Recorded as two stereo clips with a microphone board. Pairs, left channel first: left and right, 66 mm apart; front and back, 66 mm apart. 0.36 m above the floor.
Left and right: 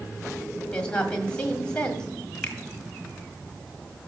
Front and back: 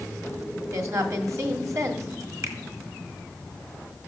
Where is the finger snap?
160° left, 1.6 m.